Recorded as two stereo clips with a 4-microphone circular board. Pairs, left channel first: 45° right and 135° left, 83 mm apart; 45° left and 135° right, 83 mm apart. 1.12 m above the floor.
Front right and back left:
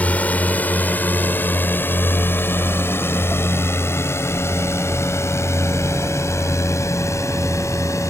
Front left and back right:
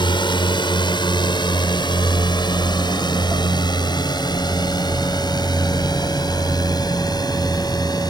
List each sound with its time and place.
0.0 s a drone: 25° left; by 8.1 s 5° left